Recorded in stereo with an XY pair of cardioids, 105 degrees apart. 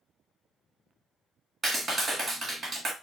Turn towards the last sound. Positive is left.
turn(degrees=-40)